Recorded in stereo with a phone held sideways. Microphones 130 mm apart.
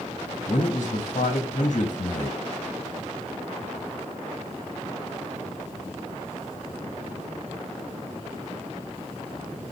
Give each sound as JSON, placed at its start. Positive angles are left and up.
{"t": 0.5, "sound": "a man speaking", "side_deg": 65, "distance_m": 1.1}